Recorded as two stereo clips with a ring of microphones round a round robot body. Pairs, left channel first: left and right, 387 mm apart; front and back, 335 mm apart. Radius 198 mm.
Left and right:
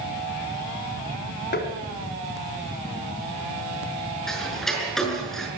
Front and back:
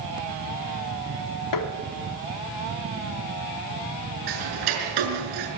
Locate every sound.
1.5 s tapping: 25° left, 1.8 m
4.3 s ticking: straight behind, 6 m